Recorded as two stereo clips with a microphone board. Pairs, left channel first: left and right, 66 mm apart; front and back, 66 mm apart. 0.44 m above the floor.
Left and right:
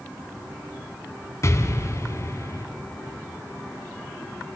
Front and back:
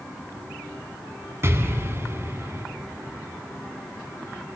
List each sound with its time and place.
1.4 s an explosion: 130° left, 1.2 m